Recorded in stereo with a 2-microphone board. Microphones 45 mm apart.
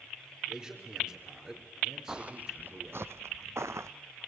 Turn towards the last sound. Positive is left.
turn(degrees=-75)  # may be behind; listen again after turning